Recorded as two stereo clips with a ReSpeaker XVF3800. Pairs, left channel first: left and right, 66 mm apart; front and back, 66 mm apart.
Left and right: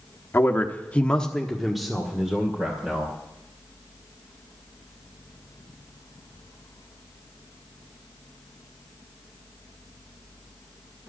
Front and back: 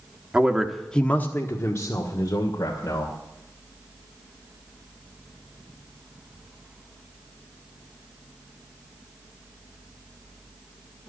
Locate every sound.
0.3 s a man speaking: 120° left, 1.2 m; by 3.1 s 15° right, 2.5 m